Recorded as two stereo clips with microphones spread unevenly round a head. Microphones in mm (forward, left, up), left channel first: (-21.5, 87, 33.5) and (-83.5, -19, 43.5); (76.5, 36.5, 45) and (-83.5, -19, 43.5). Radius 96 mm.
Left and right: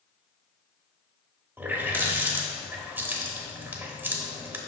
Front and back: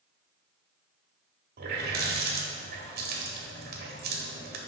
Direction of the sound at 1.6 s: 165° left.